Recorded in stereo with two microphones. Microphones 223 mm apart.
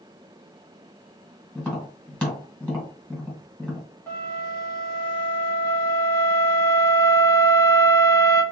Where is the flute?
10° left (ahead or behind), 1.6 m.